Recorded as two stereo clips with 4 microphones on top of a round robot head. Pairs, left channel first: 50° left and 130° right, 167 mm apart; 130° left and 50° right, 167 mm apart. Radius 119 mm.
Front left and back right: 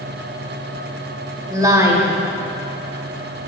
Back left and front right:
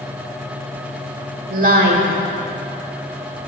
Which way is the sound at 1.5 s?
65° right.